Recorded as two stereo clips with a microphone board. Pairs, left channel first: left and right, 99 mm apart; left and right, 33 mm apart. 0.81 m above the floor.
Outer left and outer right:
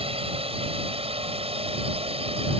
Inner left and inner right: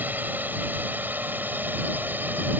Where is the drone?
70° right (ahead or behind).